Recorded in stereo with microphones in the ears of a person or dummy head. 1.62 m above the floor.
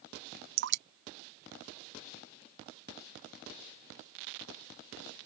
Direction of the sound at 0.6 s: 60° right (ahead or behind).